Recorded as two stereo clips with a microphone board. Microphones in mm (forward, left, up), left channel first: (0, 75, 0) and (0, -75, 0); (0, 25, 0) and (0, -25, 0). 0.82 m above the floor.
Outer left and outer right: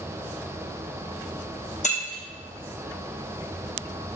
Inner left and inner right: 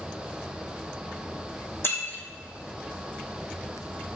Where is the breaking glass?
50° left (ahead or behind), 3.5 m.